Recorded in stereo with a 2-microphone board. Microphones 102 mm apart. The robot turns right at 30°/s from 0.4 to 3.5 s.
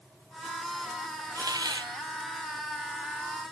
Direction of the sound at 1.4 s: 35° right (ahead or behind).